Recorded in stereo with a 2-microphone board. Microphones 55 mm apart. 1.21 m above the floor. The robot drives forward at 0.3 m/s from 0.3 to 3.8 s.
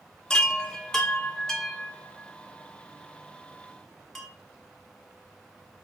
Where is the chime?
10° left (ahead or behind), 0.9 m; by 4.3 s 5° left (ahead or behind), 1.8 m.